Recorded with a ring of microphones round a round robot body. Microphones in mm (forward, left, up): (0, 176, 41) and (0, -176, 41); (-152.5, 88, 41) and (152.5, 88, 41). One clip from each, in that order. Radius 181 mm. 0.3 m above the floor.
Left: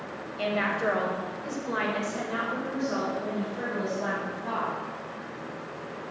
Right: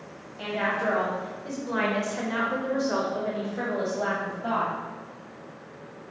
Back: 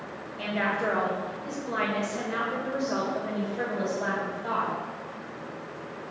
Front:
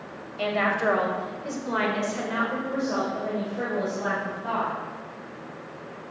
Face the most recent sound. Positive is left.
turn(degrees=-115)